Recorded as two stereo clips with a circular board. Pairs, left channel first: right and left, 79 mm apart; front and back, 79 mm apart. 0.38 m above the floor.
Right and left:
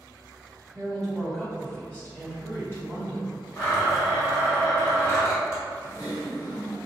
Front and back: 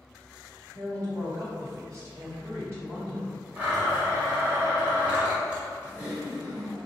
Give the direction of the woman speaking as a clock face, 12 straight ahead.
6 o'clock.